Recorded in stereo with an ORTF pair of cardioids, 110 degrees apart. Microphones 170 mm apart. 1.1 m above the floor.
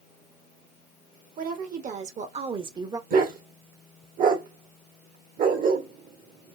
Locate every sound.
1.4 s a woman speaking: 55° right, 1.6 m; by 3.0 s 20° right, 1.0 m
3.1 s a dog barking: 55° right, 1.7 m